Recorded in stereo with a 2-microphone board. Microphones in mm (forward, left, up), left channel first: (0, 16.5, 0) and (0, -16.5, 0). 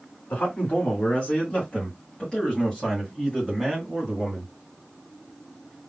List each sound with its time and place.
0.3 s a man speaking: 50° left (ahead or behind), 2.5 m; by 4.5 s 10° right (ahead or behind), 2.5 m